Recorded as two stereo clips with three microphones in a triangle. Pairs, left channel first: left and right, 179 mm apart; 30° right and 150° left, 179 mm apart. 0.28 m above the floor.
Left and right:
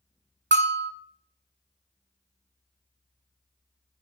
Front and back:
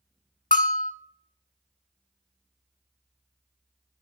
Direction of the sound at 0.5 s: 75° right.